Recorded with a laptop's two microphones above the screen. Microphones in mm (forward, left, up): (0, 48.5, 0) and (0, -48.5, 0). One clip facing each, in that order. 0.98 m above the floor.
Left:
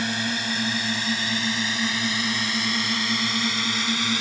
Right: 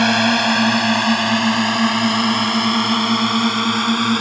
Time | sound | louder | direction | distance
0.0 | a drone | right 12 dB | 70° right (ahead or behind) | ?